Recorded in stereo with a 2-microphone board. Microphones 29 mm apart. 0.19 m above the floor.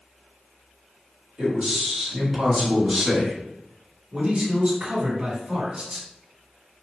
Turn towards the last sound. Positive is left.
turn(degrees=-40)  # may be behind; listen again after turning